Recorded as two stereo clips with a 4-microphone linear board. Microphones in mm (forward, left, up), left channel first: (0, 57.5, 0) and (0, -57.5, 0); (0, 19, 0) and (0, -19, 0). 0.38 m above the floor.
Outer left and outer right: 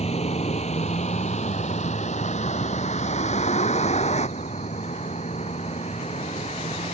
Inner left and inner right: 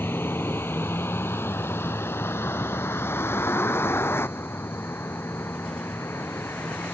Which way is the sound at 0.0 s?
70° left (ahead or behind).